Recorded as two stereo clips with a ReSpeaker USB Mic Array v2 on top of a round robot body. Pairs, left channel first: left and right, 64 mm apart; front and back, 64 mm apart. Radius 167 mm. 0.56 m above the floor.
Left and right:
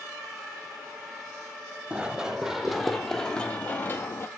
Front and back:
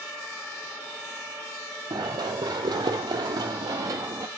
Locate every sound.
1.9 s running footsteps: 165° right, 1.7 m; by 4.3 s 140° left, 1.3 m